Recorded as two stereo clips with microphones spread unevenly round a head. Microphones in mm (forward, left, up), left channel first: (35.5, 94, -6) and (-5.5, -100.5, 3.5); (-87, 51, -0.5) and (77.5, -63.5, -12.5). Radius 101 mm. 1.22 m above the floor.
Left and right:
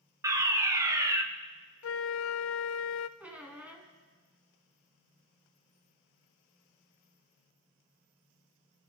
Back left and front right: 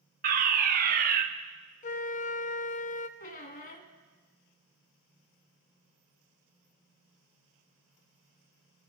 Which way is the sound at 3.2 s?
Straight behind.